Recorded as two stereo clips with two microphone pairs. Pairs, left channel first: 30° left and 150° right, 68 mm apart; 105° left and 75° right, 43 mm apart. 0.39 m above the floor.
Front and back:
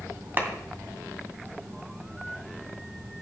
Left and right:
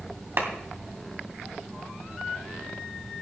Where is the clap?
95° right, 2 m.